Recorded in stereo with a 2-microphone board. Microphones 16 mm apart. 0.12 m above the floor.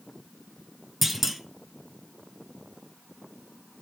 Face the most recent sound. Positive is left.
turn(degrees=-10)  # may be behind; listen again after turning